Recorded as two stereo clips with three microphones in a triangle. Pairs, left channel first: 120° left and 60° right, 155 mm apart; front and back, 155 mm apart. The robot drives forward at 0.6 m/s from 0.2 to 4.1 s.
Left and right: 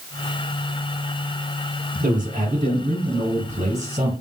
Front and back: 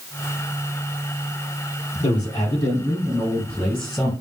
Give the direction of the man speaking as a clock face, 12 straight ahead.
2 o'clock.